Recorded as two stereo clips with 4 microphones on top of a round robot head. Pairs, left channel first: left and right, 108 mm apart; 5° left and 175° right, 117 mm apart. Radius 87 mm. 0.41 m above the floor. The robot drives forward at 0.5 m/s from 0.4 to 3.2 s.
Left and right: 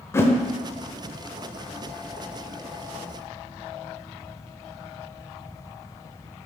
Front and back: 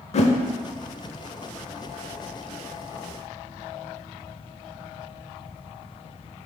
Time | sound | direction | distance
0.1 | a whoosh | 25° left | 0.8 m